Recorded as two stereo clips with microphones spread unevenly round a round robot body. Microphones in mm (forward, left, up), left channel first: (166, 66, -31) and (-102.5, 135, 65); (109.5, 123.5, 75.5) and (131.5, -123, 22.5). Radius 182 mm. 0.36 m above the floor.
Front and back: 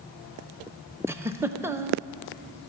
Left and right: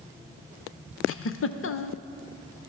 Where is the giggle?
70° left, 0.6 m.